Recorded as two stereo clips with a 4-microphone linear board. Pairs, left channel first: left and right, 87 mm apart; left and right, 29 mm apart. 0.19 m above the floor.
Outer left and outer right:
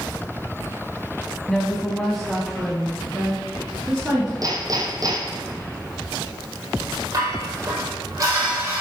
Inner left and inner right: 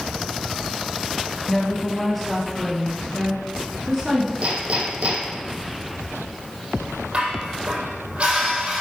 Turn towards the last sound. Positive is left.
turn(degrees=-40)  # may be behind; listen again after turning